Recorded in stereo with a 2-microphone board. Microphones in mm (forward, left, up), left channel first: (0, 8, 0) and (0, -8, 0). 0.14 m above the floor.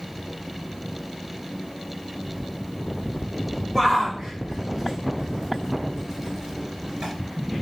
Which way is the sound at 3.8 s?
15° right (ahead or behind).